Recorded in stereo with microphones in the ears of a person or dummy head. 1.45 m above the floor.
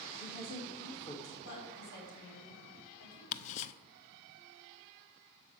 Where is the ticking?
40° left (ahead or behind), 0.6 m.